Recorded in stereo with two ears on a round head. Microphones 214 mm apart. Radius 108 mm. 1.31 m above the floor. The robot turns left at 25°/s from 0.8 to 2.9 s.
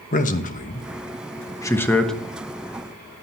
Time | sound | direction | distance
0.1 | a man speaking | 35° left (ahead or behind) | 1.1 m